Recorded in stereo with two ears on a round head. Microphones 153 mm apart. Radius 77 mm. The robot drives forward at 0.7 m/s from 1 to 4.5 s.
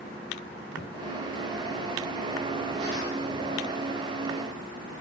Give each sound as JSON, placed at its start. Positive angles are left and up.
{"t": 0.8, "sound": "a thud", "side_deg": 55, "distance_m": 6.5}